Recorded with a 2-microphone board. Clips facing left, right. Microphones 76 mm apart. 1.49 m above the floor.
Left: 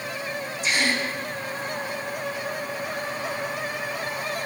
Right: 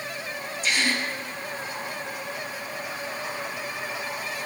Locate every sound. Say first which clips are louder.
0.6 s a gasp: left 1 dB; 20° left (ahead or behind), 2.5 m